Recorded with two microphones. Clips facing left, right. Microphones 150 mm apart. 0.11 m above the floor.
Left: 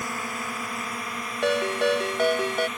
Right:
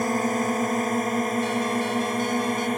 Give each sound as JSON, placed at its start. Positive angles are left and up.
{"t": 0.0, "sound": "a drone", "side_deg": -45}
{"t": 1.4, "sound": "a ringtone", "side_deg": 70}